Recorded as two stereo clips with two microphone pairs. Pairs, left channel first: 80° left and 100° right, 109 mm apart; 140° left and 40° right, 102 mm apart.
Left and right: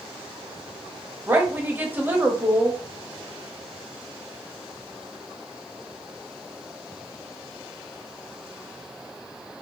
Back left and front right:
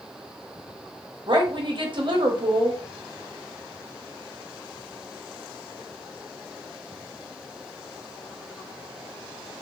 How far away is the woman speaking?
About 0.9 m.